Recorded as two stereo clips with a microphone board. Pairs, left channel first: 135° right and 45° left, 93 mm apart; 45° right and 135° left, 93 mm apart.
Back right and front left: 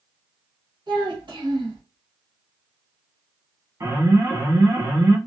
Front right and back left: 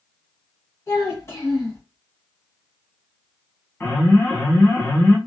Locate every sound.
0.9 s a child speaking: 15° left, 1.2 m
3.8 s an alarm: 5° left, 1.3 m